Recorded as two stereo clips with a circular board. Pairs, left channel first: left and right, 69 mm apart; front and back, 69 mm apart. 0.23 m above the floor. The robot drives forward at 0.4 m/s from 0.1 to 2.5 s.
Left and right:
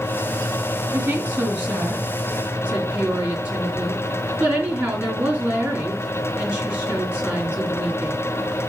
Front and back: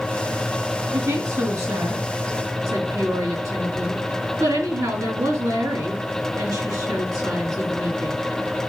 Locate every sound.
0.9 s a woman speaking: 150° right, 2.5 m; by 8.2 s 155° right, 3 m